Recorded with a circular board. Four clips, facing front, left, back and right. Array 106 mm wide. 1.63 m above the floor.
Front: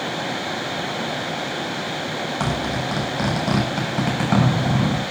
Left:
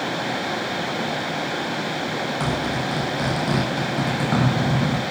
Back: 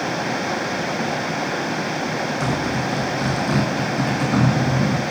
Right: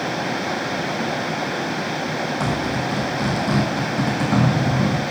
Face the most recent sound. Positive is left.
turn(degrees=5)